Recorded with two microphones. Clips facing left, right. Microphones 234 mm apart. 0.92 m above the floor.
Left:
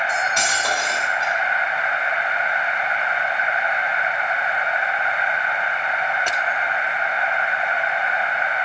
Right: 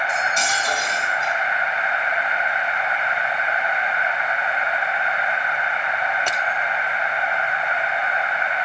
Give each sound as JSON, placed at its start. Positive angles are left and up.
{"t": 0.1, "sound": "cutlery clinking", "side_deg": 75, "distance_m": 3.0}